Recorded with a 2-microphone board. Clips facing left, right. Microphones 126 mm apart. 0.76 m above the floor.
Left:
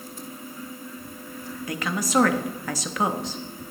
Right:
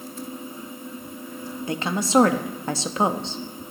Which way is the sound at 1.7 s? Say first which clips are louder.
Right 3 dB; 25° right (ahead or behind).